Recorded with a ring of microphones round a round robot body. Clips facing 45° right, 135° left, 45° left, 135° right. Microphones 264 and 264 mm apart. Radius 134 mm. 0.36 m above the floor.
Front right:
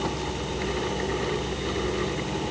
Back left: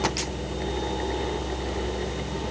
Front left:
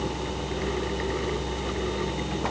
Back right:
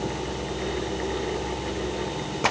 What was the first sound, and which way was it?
Only background noise.